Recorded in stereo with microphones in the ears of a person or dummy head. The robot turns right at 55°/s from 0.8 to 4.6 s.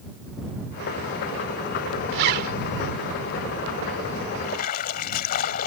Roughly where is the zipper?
Right.